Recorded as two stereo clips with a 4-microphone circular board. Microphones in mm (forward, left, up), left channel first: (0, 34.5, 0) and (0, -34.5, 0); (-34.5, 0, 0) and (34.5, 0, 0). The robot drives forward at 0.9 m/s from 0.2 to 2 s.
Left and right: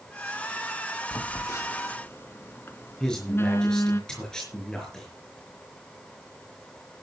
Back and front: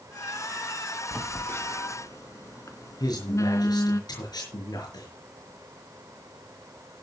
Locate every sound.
1.1 s a phone buzzing: 110° left, 0.9 m; by 4.0 s 145° left, 1.3 m
3.0 s a man speaking: 170° left, 5.5 m